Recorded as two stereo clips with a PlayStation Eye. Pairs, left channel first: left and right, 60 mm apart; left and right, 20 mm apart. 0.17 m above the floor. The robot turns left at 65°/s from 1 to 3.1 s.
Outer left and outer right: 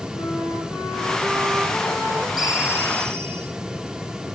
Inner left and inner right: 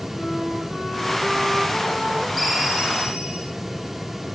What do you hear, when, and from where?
0.1 s a flute: 35° left, 4.5 m; by 2.3 s 45° right, 4.5 m
2.4 s a ringtone: 5° right, 3.5 m; by 3.5 s 50° right, 3.5 m